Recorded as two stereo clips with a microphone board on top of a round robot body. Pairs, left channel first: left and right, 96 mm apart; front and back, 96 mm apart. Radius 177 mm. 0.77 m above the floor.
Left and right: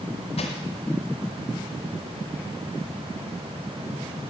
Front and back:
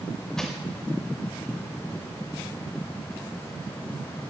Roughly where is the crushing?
Left.